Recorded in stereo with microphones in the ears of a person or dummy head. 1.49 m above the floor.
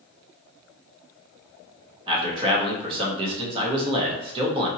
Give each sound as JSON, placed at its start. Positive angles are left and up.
{"t": 2.1, "sound": "a man speaking", "side_deg": -35, "distance_m": 1.1}